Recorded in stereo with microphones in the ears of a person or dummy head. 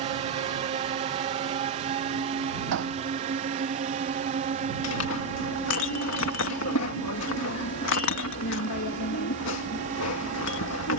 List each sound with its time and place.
0.0 s a drone: 30° right (ahead or behind); by 11.0 s 35° right (ahead or behind)
2.7 s hammering: 60° right (ahead or behind)
4.8 s a clink: 75° left (ahead or behind)